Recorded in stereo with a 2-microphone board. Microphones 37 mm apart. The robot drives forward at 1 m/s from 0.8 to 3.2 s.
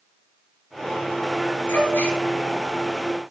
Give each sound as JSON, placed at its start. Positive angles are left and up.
{"t": 1.7, "sound": "a gasp", "side_deg": 75, "distance_m": 2.5}